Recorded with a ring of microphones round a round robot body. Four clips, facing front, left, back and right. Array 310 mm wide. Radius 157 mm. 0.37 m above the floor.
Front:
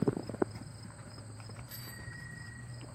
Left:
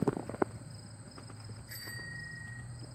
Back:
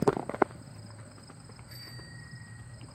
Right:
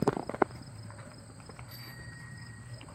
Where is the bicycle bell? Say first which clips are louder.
Left 2 dB, even; 45° left, 2.5 m.